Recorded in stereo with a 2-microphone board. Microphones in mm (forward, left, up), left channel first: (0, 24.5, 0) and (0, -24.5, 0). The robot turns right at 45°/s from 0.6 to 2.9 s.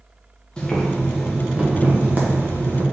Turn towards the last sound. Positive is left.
turn(degrees=-95)